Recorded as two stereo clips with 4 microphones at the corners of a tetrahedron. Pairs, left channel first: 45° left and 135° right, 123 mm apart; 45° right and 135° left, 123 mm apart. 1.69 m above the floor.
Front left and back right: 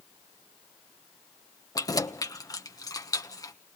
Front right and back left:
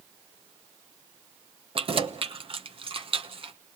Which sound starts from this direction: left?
Keys jangling, at 1.8 s.